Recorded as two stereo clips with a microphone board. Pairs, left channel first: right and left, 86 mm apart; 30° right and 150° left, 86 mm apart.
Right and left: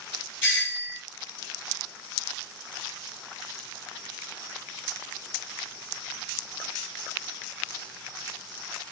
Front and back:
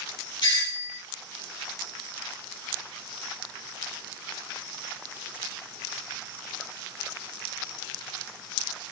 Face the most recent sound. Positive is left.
turn(degrees=-25)